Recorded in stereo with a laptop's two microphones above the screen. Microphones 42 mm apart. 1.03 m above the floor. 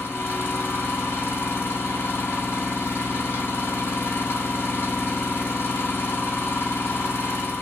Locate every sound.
0.0 s an engine running: 75° left (ahead or behind), 1.1 m